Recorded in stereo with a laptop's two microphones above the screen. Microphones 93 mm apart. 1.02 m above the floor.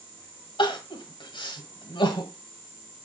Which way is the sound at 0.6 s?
60° left (ahead or behind).